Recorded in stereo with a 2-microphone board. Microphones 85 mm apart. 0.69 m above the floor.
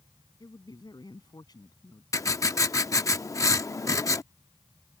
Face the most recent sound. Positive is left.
turn(degrees=40)  # may be behind; listen again after turning